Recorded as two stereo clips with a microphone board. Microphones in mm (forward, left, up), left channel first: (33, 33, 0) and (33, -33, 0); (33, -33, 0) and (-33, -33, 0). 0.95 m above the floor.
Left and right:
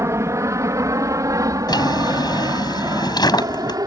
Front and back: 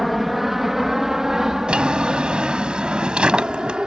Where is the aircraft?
95° right; by 3.9 s 105° right.